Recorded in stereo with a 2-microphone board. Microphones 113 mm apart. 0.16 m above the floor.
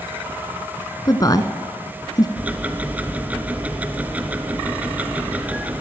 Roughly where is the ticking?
Centre.